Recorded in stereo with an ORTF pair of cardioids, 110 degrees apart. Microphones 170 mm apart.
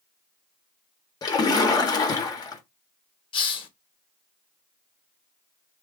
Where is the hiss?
35° left, 0.8 m.